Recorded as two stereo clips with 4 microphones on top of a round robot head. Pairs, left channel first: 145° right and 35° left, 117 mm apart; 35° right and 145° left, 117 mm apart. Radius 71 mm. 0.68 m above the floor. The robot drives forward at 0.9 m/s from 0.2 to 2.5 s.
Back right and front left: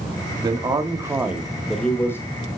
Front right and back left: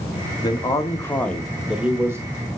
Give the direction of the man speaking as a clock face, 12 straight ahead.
12 o'clock.